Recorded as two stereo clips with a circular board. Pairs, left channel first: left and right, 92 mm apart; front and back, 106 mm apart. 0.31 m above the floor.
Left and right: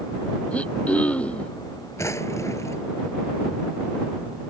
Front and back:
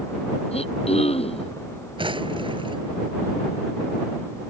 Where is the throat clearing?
15° left.